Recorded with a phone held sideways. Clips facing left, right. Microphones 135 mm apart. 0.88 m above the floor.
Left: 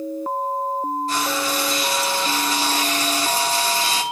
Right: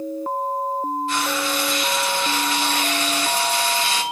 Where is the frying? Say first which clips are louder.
Even; 40° left (ahead or behind), 2.0 m.